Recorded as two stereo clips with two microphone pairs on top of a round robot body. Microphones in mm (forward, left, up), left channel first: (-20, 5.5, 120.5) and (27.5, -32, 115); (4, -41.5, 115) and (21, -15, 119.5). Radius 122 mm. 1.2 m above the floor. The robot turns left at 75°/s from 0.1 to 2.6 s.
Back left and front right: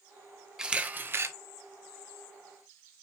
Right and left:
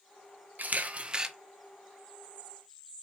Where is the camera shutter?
35° left, 0.8 m; by 1.3 s 20° right, 0.8 m.